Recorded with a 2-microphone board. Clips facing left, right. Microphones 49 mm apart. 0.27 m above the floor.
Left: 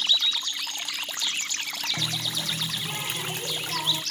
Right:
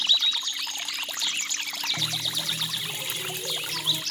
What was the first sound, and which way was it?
A running tap, 55° left (ahead or behind).